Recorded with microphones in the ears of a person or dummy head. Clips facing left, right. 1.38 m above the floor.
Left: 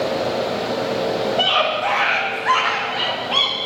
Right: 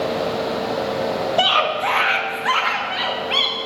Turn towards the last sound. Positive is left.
turn(degrees=-30)  # may be behind; listen again after turning